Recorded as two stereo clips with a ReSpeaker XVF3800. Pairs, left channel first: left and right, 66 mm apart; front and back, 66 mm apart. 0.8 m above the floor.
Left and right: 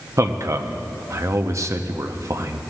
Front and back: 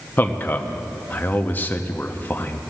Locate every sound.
0.2 s a man speaking: 60° right, 0.7 m